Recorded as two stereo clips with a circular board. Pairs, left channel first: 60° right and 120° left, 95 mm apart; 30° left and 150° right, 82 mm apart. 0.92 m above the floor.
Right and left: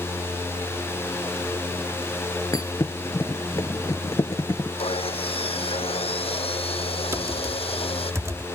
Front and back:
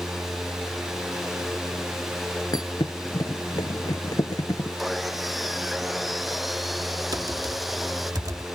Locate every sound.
2.5 s a thud: 5° right
4.8 s sawing: 60° right
7.1 s typing on a keyboard: 175° left